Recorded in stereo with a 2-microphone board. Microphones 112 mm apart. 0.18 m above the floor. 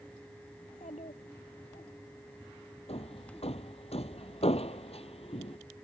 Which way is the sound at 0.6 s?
85° left.